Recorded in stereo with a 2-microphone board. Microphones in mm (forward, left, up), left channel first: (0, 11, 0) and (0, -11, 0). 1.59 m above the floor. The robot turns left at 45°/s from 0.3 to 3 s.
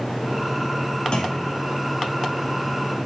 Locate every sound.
1.1 s a clunk: 45° left (ahead or behind), 0.5 m; by 1.6 s 65° left (ahead or behind), 0.5 m